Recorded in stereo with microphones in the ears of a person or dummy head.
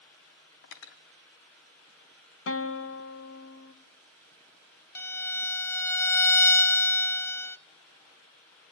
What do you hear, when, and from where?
0.6 s cutlery clinking: 65° left (ahead or behind), 1.2 m
2.5 s a guitar: 75° left (ahead or behind), 1.3 m
5.0 s a violin: 15° left (ahead or behind), 0.5 m